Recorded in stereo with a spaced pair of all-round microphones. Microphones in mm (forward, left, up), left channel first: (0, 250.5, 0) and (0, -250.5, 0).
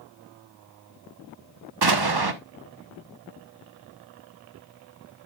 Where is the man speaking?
I don't hear a man speaking.